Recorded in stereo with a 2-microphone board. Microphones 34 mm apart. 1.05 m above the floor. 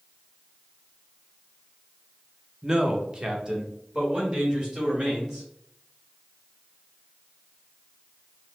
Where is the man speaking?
20° right (ahead or behind), 0.6 m; by 5.5 s 25° right (ahead or behind), 2 m.